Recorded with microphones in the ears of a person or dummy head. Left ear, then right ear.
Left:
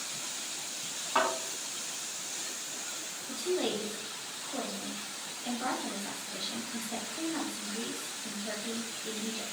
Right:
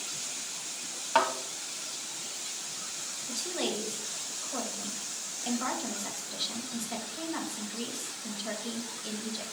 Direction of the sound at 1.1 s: 40° right (ahead or behind).